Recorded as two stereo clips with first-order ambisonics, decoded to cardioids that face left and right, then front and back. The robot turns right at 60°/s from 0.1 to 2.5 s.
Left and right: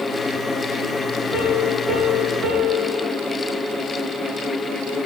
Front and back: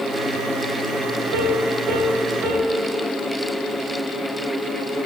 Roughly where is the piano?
Behind.